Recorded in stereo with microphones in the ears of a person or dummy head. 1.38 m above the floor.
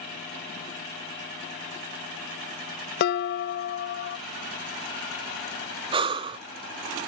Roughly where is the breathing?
Right.